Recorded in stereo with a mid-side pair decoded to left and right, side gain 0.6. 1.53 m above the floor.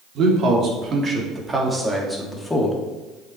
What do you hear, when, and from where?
0.1 s a man speaking: 55° right, 3.5 m; by 2.8 s 10° left, 3 m